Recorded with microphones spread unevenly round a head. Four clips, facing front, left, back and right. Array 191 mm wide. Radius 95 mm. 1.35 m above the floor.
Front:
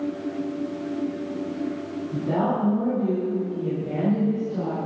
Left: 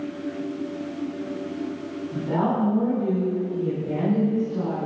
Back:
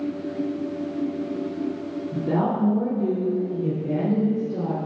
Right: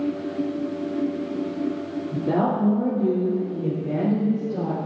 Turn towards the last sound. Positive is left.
turn(degrees=-145)